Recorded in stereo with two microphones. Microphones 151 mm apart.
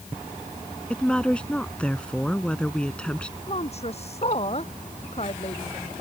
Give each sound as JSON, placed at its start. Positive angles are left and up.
{"t": 0.9, "sound": "a woman speaking", "side_deg": 5}
{"t": 3.5, "sound": "a woman speaking", "side_deg": 45}